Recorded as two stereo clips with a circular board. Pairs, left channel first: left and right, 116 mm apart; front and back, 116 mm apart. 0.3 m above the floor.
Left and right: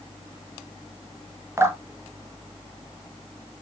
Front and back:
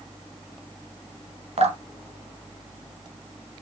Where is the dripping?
155° right, 1.4 m.